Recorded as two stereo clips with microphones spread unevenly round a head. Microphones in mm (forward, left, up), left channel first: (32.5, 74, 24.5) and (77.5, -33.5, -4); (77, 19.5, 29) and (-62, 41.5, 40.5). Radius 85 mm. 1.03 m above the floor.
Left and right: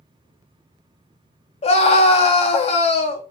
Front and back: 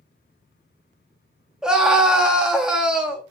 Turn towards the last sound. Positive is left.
turn(degrees=85)